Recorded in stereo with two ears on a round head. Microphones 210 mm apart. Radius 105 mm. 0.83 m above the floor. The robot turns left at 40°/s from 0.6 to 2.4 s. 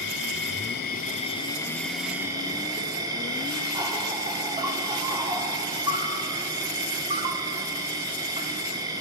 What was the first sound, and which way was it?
An insect, 55° left.